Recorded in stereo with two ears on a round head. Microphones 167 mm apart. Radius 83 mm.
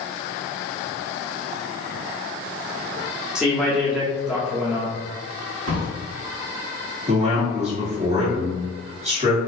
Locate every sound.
3.4 s a man speaking: 5° right (ahead or behind), 0.8 m
5.7 s a drawer: 85° right, 1.1 m
7.1 s a man speaking: 35° right (ahead or behind), 1.5 m